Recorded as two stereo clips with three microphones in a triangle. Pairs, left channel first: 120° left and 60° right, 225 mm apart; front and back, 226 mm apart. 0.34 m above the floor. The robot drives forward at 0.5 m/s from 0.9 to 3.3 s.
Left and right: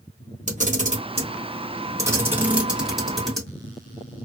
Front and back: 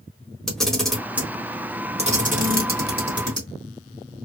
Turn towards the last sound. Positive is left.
turn(degrees=-150)